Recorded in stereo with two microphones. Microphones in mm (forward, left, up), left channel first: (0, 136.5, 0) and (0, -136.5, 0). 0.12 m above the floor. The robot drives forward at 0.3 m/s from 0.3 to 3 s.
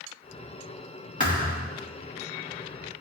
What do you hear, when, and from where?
1.2 s a thud: 30° left (ahead or behind), 2 m